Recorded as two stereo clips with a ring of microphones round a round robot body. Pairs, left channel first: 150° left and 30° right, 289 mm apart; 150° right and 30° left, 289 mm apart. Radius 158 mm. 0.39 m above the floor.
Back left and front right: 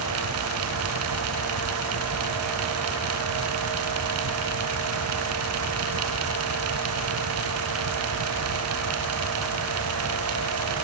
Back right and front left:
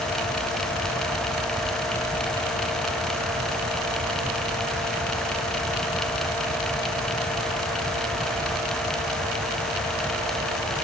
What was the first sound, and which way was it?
Only background noise.